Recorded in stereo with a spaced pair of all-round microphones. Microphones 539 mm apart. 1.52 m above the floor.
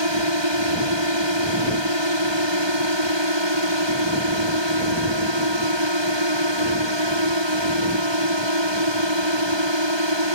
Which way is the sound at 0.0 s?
50° right (ahead or behind).